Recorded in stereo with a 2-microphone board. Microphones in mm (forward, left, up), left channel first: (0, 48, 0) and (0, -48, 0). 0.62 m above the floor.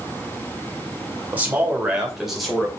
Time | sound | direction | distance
1.3 | a man speaking | 15° right (ahead or behind) | 2.5 m